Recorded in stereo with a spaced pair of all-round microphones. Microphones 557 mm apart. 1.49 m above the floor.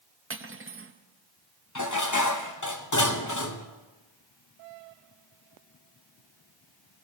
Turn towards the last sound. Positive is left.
turn(degrees=35)  # may be behind; listen again after turning